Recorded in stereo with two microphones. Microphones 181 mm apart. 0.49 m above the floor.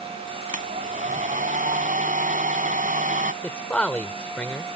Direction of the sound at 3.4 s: 5° left (ahead or behind).